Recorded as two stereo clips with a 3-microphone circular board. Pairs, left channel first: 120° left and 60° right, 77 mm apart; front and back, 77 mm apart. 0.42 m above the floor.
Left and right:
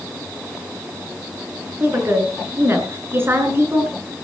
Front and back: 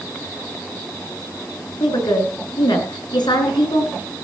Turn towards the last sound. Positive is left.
turn(degrees=0)